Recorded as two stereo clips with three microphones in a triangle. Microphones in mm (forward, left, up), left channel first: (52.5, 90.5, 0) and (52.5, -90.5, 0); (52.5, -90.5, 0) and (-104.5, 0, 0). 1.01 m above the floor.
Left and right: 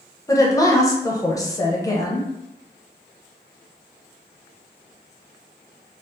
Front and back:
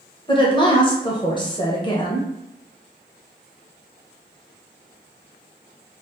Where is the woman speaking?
25° left, 0.7 m.